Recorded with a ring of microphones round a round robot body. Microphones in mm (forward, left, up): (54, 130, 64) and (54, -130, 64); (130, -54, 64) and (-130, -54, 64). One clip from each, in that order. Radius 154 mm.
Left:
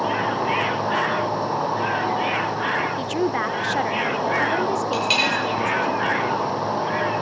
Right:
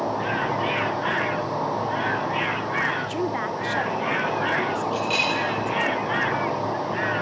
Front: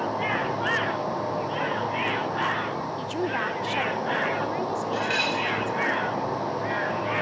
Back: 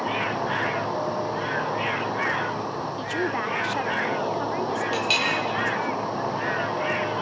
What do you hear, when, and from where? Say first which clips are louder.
0.0 s an insect: left 3 dB, even; 120° left, 6.5 m
3.0 s a woman speaking: left 3 dB, back 2 dB; 105° left, 0.9 m
4.9 s a clink: left 4 dB, back 2 dB; 135° left, 7.5 m